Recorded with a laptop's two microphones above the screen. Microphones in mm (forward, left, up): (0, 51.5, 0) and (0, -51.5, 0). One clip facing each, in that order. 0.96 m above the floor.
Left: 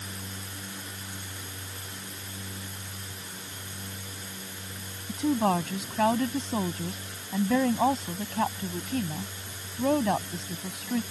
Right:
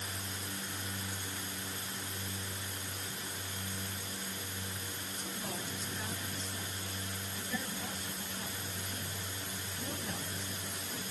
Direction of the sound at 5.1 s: 85° left.